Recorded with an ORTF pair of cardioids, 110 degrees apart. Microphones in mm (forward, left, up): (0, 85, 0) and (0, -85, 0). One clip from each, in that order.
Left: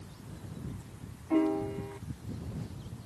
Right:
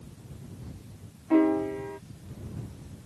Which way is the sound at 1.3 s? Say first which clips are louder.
Right 5 dB; 30° right.